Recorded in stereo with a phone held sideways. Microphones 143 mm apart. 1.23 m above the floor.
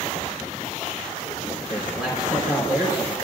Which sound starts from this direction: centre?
A man speaking, at 1.7 s.